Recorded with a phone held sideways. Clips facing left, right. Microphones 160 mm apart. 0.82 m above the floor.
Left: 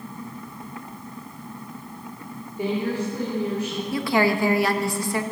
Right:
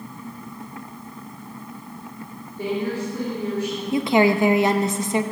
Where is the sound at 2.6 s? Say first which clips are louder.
Even; 15° left (ahead or behind), 2.5 m.